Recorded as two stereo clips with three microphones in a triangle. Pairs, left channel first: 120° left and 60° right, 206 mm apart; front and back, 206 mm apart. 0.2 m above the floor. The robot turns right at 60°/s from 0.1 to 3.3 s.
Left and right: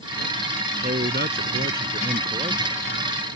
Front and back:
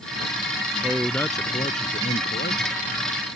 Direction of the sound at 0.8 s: 100° right.